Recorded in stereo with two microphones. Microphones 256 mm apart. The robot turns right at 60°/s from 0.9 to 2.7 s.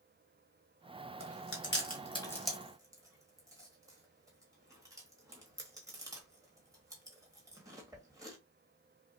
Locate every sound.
1.2 s chewing: 65° left (ahead or behind), 1.4 m; by 8.4 s 15° right (ahead or behind), 1.4 m